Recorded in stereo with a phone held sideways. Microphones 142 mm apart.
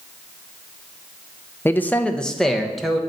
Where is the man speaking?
15° left (ahead or behind), 0.7 m; by 3.0 s centre (ahead or behind), 1.4 m.